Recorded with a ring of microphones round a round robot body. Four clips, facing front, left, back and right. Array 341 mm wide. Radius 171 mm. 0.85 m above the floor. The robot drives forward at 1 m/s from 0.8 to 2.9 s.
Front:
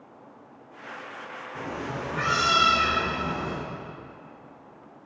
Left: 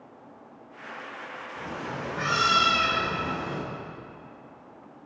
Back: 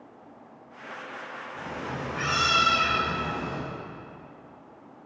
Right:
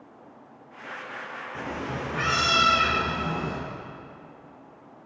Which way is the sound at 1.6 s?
60° right.